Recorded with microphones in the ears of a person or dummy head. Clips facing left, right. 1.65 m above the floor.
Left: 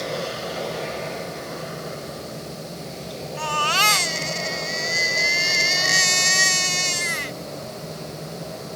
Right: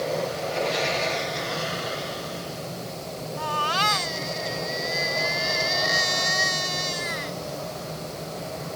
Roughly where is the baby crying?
Left.